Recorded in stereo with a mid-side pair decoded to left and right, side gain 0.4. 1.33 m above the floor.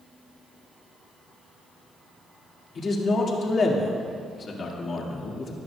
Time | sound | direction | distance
2.8 | a man speaking | 50° left | 2 m